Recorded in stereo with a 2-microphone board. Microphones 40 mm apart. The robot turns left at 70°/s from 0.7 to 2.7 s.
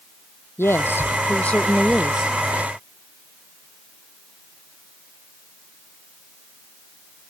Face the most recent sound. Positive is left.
turn(degrees=-55)